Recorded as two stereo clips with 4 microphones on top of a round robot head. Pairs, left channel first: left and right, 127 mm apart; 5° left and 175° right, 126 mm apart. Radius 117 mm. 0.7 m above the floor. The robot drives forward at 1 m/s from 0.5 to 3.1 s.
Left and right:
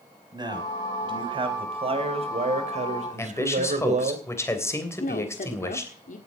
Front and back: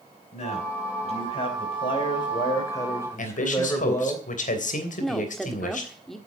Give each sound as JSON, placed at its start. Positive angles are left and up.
{"t": 0.3, "sound": "a man speaking", "azimuth_deg": -35, "distance_m": 4.5}
{"t": 3.2, "sound": "a man speaking", "azimuth_deg": 20, "distance_m": 3.0}
{"t": 5.0, "sound": "a woman speaking", "azimuth_deg": 95, "distance_m": 1.7}